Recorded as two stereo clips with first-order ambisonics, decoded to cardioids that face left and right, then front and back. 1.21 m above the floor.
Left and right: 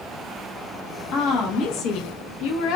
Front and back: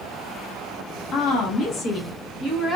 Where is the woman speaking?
45° left, 1.6 m; by 2.8 s 75° left, 1.1 m.